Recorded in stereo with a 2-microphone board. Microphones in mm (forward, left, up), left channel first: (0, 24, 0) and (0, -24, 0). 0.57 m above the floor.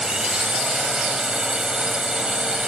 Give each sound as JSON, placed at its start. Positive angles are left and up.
{"t": 0.0, "sound": "a drone", "side_deg": -10}